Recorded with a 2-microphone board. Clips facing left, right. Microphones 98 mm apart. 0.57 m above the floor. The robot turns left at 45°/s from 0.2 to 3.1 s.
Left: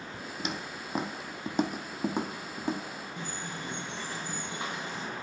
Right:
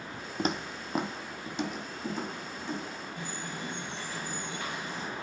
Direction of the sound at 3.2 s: 25° left (ahead or behind).